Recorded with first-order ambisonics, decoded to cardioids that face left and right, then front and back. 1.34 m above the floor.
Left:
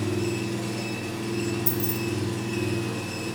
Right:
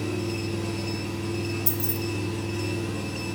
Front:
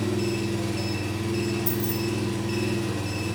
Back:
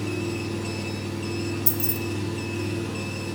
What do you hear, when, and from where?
0.0 s an engine running: 45° left, 2.5 m
1.7 s keys jangling: 170° right, 0.6 m